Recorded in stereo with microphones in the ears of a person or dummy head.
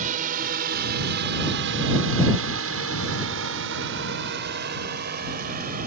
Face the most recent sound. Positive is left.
turn(degrees=-50)  # may be behind; listen again after turning